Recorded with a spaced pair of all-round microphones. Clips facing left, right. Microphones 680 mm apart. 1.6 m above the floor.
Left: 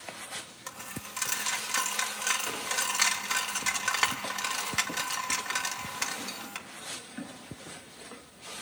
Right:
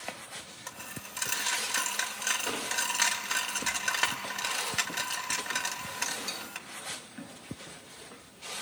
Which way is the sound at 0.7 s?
35° left (ahead or behind).